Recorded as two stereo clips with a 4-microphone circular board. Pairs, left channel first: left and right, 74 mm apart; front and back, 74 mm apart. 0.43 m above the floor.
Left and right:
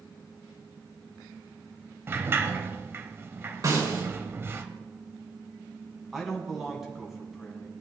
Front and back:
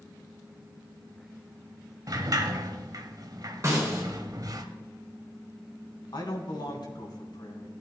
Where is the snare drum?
125° right, 4 m.